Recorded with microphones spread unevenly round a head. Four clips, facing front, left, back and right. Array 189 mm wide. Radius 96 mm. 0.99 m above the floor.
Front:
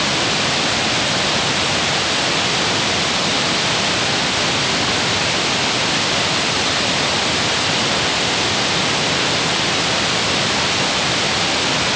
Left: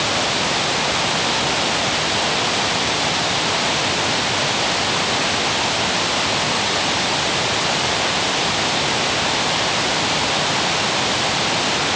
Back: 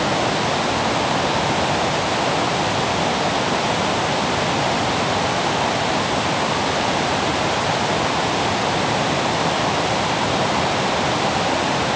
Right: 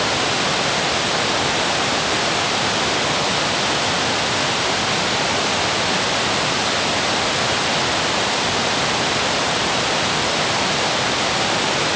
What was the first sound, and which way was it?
Only background noise.